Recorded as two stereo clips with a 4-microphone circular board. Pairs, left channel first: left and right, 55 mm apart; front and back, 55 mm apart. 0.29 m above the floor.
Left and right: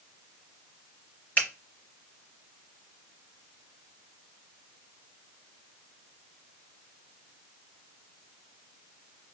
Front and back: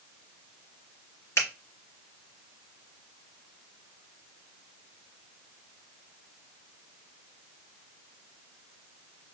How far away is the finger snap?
About 3.5 m.